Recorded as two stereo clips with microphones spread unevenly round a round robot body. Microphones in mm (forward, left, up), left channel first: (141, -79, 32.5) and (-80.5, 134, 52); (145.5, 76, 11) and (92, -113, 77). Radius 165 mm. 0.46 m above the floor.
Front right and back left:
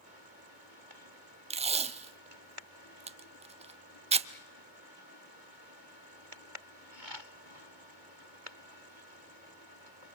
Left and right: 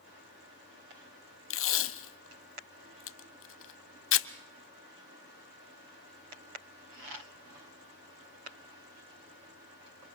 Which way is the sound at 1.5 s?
65° left.